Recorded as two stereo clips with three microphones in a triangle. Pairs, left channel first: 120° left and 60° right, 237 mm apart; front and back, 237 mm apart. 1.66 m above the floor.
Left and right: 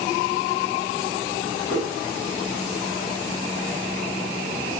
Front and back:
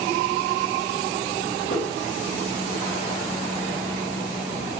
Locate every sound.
1.7 s a whoosh: 40° left, 2 m